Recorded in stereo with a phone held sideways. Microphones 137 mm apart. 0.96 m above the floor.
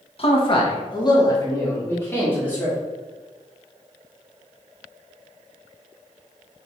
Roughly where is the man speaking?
Left.